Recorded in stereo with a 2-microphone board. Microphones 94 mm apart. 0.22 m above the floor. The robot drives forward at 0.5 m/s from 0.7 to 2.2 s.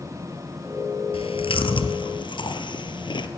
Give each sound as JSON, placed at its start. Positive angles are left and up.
{"t": 1.1, "sound": "chewing", "side_deg": 75, "distance_m": 1.4}